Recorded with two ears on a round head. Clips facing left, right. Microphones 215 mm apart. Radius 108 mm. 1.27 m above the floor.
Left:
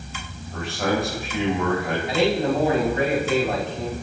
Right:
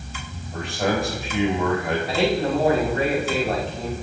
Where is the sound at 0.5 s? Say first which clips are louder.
Even; centre (ahead or behind), 5.5 m.